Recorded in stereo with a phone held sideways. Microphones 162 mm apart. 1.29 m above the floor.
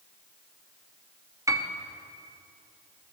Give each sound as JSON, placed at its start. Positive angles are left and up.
{"t": 1.5, "sound": "a piano", "side_deg": -20, "distance_m": 0.7}